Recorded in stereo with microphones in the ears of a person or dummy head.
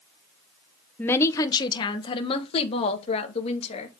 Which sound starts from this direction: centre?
A woman speaking, at 1.0 s.